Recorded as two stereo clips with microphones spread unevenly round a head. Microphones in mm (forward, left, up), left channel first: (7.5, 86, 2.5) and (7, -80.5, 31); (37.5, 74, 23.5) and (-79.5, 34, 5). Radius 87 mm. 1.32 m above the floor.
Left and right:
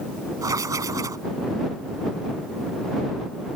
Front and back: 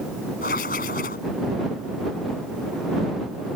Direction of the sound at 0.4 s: 20° right.